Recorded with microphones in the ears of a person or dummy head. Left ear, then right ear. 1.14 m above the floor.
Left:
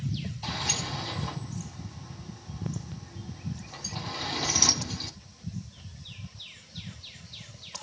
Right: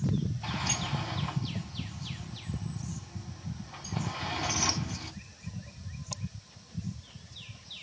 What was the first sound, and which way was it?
A sliding door, 55° left (ahead or behind).